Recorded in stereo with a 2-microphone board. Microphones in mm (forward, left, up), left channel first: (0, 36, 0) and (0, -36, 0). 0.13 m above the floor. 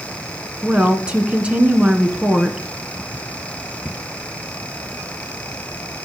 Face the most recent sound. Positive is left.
turn(degrees=-15)  # may be behind; listen again after turning